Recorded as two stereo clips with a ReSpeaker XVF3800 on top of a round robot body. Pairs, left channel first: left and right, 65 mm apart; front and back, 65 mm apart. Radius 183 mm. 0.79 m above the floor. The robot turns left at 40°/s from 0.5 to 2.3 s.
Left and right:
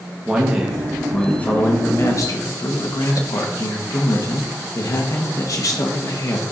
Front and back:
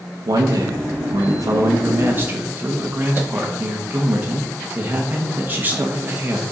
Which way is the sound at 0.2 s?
170° right.